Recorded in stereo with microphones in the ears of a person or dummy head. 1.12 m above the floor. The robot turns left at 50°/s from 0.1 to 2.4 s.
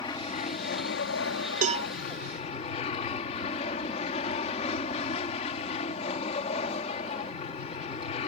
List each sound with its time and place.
0.0 s an aircraft: 155° left; by 8.3 s 40° left
1.6 s a cowbell: 40° right (ahead or behind); by 1.9 s 25° right (ahead or behind)